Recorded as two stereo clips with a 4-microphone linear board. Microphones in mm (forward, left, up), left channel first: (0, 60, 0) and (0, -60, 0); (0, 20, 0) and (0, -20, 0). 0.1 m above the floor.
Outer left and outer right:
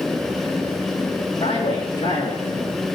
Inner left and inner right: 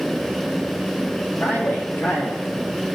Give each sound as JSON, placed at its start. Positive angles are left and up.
{"t": 1.4, "sound": "a man speaking", "side_deg": 65, "distance_m": 3.5}